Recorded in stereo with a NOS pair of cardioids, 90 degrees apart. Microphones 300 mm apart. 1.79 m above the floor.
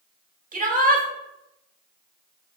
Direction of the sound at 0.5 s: 30° right.